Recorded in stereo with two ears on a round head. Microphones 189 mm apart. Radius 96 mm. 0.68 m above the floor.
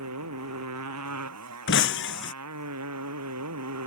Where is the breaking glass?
60° left (ahead or behind).